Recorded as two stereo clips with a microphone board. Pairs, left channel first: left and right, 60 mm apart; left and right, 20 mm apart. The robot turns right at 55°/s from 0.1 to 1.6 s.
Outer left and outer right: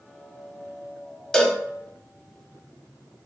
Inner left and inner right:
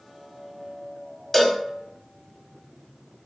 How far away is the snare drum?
I don't hear a snare drum.